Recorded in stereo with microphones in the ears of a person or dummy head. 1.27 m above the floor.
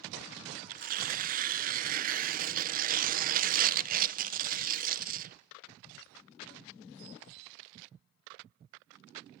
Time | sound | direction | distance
0.7 | tearing paper | 45° right (ahead or behind) | 0.9 m